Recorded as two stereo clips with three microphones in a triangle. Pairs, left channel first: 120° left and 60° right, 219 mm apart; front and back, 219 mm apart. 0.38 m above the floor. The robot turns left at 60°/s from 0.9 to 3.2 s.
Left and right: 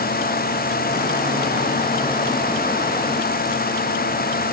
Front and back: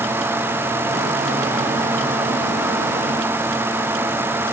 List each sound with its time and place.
Only background noise.